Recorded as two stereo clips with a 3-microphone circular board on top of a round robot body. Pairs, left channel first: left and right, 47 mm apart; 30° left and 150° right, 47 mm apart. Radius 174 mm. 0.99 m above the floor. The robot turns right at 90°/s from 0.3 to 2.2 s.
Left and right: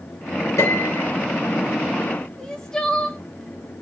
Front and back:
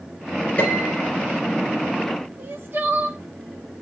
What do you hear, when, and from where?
0.6 s a piano: 85° left, 3.5 m; by 1.1 s 135° left, 3.5 m
2.4 s crying: 170° left, 1.2 m